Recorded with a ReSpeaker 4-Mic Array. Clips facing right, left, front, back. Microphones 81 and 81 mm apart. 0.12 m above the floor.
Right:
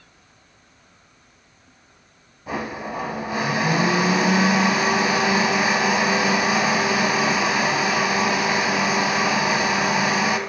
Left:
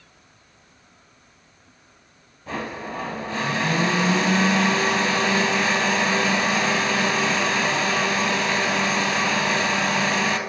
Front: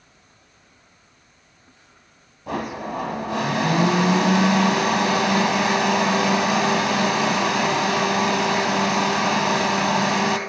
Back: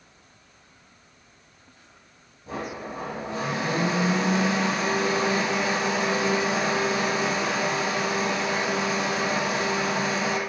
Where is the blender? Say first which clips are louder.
Right 2 dB, front 6 dB; 10° right, 1.0 m.